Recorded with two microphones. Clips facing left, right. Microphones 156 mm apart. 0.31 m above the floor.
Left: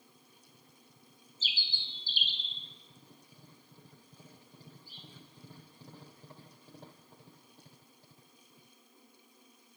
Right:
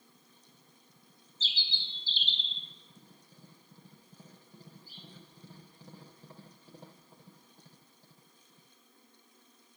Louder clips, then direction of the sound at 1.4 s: Right 1 dB; 15° left (ahead or behind).